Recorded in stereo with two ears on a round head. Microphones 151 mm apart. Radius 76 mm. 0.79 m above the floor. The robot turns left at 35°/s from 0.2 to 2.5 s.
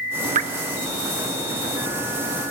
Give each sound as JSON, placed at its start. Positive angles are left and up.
{"t": 0.3, "sound": "dripping", "side_deg": -45, "distance_m": 1.3}